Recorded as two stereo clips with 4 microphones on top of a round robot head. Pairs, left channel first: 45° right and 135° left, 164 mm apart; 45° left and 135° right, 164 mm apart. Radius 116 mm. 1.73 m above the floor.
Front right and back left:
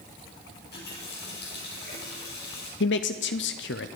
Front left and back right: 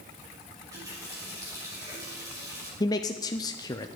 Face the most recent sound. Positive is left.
turn(degrees=-25)